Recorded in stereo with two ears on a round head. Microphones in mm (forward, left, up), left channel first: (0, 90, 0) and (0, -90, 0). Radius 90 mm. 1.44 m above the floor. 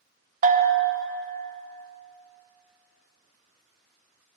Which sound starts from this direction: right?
A bell, at 0.4 s.